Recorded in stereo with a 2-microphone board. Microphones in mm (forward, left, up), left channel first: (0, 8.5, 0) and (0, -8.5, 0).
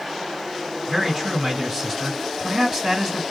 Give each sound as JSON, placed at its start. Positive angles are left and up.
{"t": 0.9, "sound": "a man speaking", "side_deg": -35, "distance_m": 2.5}